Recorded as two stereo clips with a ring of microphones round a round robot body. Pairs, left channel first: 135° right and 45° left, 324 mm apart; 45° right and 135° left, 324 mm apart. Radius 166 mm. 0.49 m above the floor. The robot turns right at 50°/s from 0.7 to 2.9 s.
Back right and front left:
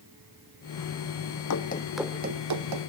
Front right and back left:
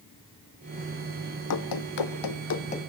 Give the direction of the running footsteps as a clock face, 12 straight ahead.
3 o'clock.